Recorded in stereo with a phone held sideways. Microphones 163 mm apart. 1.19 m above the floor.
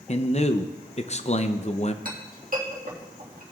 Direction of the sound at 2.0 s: 60° right (ahead or behind).